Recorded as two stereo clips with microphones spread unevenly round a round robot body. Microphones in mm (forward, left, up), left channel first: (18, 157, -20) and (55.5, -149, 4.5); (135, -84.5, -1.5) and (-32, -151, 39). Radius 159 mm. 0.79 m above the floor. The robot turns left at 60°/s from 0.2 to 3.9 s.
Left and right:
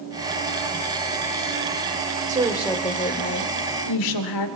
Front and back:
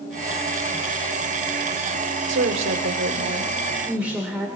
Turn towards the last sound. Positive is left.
turn(degrees=110)